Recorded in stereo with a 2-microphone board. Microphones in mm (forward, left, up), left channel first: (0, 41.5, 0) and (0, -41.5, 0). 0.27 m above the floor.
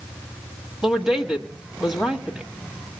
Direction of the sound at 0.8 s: 5° right (ahead or behind).